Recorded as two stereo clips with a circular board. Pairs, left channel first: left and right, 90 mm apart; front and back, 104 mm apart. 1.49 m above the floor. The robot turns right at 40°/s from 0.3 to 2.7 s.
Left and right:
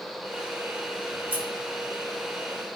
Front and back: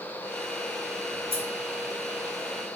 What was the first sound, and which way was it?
Scissors, 170° right.